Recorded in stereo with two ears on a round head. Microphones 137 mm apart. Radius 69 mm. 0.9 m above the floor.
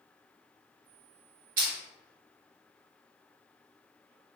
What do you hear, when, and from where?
1.6 s crushing: 60° right (ahead or behind), 1.3 m